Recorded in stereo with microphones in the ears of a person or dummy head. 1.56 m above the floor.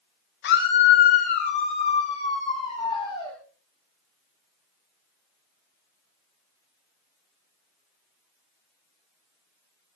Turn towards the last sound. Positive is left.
turn(degrees=25)  # may be behind; listen again after turning